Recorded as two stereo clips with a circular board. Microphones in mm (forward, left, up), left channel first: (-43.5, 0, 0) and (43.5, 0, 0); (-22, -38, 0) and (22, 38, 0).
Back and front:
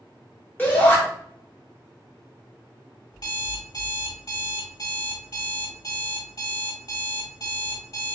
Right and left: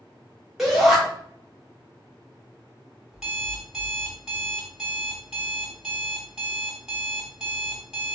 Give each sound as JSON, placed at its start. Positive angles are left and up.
{"t": 0.6, "sound": "a shout", "azimuth_deg": 140, "distance_m": 1.0}
{"t": 3.1, "sound": "an alarm clock", "azimuth_deg": 145, "distance_m": 0.9}